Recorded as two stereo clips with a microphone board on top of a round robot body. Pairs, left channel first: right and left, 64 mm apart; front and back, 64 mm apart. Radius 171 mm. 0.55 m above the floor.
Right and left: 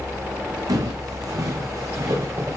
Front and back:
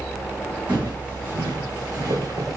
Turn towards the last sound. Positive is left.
turn(degrees=135)